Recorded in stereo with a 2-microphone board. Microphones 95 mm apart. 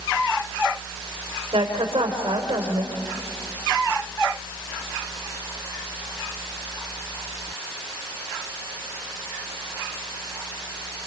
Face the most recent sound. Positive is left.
turn(degrees=-70)  # may be behind; listen again after turning